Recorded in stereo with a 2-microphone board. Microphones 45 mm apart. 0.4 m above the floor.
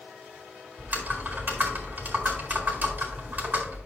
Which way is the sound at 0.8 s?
45° right (ahead or behind).